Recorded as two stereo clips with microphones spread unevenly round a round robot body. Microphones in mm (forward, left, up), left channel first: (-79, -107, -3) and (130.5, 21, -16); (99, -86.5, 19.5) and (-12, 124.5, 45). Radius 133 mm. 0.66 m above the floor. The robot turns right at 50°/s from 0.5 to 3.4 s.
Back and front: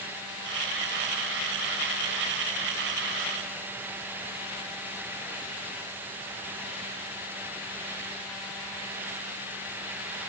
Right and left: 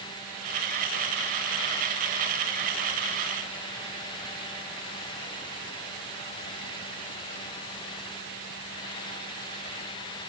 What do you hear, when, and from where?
Only background noise.